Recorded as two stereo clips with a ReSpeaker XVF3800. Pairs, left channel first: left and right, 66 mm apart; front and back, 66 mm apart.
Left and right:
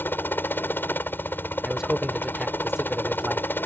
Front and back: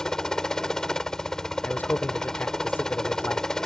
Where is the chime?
I don't hear a chime.